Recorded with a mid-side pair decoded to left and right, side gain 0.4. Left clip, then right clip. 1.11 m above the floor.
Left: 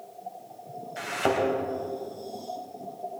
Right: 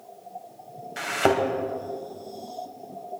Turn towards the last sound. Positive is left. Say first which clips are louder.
# right 4 dB
turn(degrees=-45)